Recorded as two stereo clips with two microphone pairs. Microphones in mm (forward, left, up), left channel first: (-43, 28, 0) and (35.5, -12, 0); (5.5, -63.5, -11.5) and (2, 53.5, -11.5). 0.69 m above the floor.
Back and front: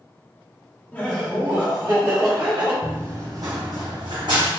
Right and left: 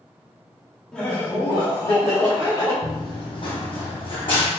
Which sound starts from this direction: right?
Running footsteps, at 2.8 s.